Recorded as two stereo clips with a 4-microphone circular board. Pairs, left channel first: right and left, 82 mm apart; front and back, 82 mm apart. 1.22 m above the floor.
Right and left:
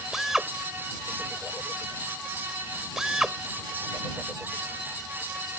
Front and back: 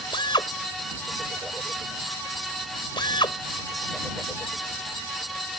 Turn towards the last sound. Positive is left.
turn(degrees=5)